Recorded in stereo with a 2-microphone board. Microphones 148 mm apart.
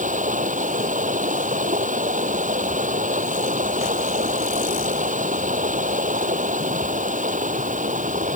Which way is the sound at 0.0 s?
60° right (ahead or behind).